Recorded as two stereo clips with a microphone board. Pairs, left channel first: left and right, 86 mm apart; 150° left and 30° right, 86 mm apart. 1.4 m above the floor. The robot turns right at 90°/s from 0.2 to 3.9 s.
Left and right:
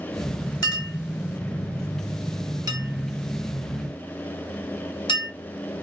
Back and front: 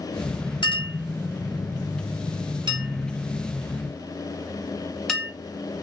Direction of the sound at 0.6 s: 125° left.